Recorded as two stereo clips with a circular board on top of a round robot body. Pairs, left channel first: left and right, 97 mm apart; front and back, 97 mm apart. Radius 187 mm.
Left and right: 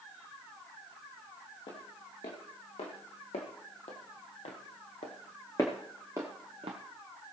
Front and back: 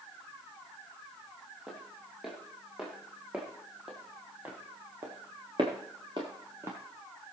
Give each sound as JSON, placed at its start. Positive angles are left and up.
{"t": 1.7, "sound": "footsteps", "azimuth_deg": 90, "distance_m": 2.5}